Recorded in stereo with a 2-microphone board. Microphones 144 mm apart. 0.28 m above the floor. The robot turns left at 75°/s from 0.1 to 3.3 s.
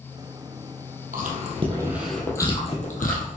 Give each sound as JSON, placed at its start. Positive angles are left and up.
{"t": 1.1, "sound": "chewing", "side_deg": -75, "distance_m": 3.0}